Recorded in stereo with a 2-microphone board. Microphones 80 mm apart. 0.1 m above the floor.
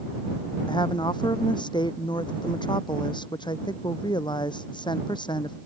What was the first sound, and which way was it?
A woman speaking, 70° left (ahead or behind).